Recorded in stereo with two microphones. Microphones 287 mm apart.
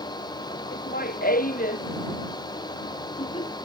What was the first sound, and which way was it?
Laughter, 30° left (ahead or behind).